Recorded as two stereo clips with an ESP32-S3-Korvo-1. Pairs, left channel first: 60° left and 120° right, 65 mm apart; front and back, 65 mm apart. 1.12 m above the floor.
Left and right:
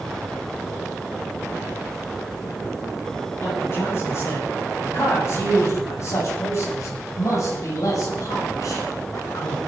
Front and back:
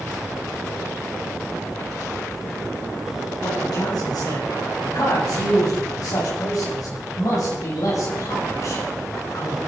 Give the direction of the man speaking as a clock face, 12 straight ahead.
12 o'clock.